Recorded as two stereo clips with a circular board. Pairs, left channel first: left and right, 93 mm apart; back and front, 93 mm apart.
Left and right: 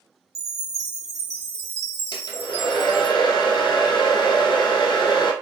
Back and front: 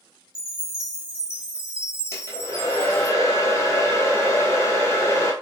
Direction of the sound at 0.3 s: 70° right.